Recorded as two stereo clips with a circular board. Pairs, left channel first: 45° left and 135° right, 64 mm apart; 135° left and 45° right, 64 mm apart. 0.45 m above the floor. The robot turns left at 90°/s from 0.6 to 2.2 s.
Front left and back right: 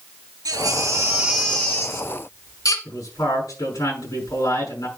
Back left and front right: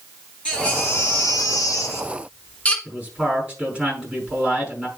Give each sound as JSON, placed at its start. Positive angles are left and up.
{"t": 0.5, "sound": "a baby crying", "azimuth_deg": -150, "distance_m": 1.5}
{"t": 2.9, "sound": "a man speaking", "azimuth_deg": 30, "distance_m": 5.5}